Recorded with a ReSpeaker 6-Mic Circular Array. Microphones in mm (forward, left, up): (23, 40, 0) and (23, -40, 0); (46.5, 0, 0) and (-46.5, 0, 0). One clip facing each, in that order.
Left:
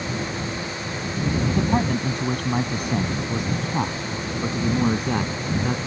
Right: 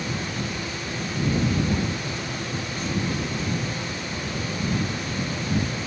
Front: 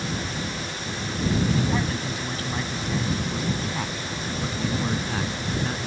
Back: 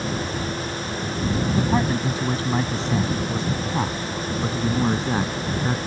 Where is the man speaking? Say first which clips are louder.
Left 4 dB, back 4 dB; 120° left; by 5.8 s 115° left.